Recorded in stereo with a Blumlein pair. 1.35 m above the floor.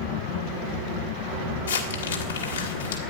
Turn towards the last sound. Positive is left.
turn(degrees=70)